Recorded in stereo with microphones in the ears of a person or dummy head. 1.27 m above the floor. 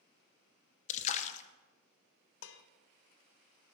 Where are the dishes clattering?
75° left (ahead or behind), 0.6 m.